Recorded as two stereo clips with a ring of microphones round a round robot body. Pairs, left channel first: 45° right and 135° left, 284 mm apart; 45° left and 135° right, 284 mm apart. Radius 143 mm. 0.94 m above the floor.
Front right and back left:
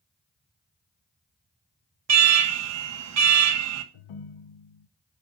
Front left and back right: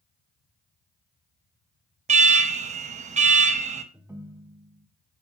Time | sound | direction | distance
2.1 | an alarm | 160° left | 1.1 m
3.9 | a ringtone | 50° right | 0.6 m